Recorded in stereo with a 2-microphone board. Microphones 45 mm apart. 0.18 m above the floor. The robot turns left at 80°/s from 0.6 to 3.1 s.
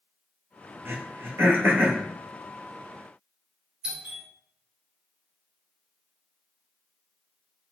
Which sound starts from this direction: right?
Throat clearing, at 0.8 s.